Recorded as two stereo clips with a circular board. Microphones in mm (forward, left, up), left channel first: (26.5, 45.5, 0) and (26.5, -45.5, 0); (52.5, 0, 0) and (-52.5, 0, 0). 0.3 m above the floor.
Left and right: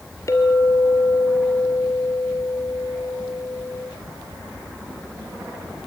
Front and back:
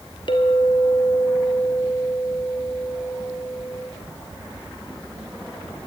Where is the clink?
35° left, 3.5 m.